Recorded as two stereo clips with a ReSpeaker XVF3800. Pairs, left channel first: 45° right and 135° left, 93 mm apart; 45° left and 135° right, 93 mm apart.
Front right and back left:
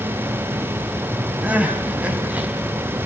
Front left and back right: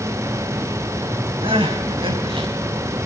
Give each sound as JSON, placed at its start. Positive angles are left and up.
{"t": 1.4, "sound": "crying", "azimuth_deg": -150, "distance_m": 3.0}